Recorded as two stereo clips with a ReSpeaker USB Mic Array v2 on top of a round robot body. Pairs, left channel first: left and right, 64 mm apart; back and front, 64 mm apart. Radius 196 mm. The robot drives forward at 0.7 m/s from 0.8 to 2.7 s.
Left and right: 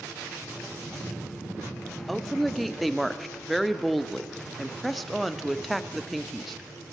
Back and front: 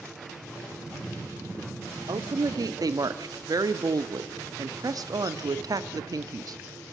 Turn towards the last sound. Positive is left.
turn(degrees=0)